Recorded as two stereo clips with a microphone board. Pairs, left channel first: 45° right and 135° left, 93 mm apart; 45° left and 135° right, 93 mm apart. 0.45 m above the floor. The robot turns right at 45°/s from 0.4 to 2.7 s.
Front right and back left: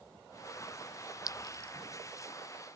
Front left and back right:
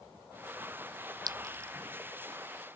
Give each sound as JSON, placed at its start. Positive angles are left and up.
{"t": 1.3, "sound": "a clink", "azimuth_deg": -90}